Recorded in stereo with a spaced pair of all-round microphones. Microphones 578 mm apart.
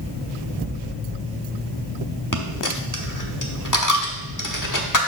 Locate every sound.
2.3 s a dropped coin: 35° left (ahead or behind), 1.0 m